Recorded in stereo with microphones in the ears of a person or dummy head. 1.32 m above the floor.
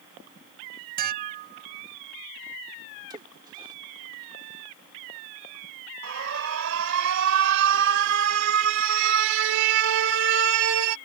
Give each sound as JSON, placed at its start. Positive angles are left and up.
{"t": 1.0, "sound": "dishes clattering", "side_deg": -45}
{"t": 3.1, "sound": "a splash", "side_deg": -20}
{"t": 6.0, "sound": "an alarm", "side_deg": -65}